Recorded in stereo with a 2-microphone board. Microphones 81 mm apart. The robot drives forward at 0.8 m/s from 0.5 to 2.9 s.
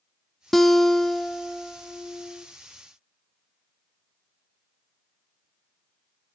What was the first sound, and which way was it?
A guitar, centre (ahead or behind).